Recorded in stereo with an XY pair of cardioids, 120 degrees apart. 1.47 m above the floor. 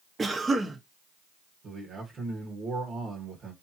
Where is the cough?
20° right, 1.1 m.